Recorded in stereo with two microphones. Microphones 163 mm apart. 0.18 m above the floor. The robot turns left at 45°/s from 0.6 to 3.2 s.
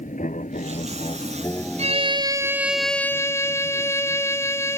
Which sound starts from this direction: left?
An aircraft, at 0.0 s.